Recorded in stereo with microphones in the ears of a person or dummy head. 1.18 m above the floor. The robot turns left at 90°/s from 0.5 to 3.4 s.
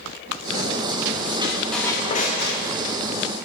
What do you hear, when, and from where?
1.4 s a squeak: 150° right, 0.8 m; by 2.6 s 100° left, 0.8 m